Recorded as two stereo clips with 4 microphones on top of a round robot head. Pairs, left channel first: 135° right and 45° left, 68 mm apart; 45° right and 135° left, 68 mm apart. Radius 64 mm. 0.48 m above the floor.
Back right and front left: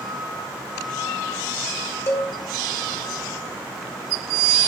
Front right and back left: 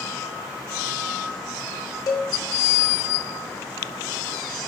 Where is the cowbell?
85° right, 1.6 m.